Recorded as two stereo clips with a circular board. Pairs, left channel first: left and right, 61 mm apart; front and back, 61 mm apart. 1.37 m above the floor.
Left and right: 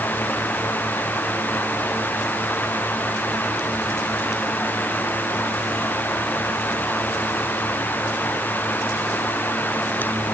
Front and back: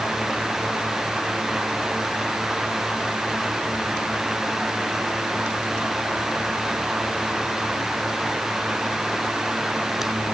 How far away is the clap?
No clap in this recording.